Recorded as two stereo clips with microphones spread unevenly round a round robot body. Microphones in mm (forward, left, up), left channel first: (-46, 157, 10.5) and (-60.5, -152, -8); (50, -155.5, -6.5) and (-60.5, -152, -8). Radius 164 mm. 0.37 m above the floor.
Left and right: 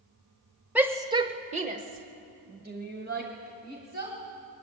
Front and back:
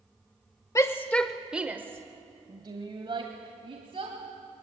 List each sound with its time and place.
0.8 s a shout: 15° right, 1.0 m; by 4.2 s 150° right, 2.5 m